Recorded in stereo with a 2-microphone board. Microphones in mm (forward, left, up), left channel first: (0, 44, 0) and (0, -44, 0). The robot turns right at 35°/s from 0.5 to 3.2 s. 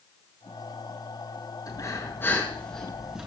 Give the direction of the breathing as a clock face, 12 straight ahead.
8 o'clock.